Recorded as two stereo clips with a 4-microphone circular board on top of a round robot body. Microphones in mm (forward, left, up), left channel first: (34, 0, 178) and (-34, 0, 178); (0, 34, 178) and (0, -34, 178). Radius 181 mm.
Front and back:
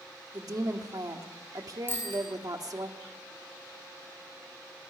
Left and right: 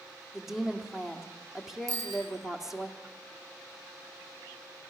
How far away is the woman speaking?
About 2 m.